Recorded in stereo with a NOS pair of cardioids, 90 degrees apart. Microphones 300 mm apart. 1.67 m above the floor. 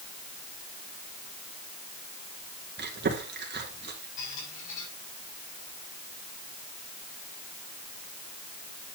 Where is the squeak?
65° left, 6 m.